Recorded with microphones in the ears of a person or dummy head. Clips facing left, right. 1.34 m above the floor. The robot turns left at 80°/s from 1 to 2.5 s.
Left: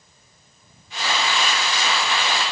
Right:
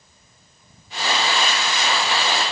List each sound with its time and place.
Only background noise.